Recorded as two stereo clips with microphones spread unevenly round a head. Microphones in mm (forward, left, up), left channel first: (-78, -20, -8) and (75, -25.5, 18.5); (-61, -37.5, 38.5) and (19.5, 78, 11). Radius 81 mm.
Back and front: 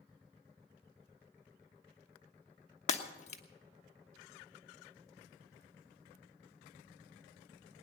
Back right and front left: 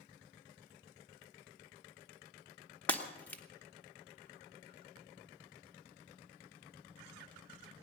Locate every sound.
2.9 s breaking glass: 170° right, 1.1 m